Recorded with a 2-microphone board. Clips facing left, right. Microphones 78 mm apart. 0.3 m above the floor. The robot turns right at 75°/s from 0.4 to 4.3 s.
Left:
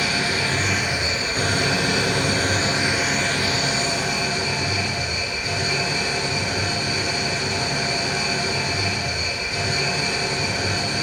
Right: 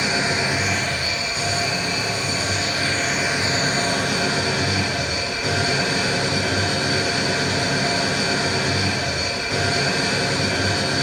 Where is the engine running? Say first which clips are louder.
Right 1 dB; 25° right, 3 m; by 11.0 s 90° right, 3 m.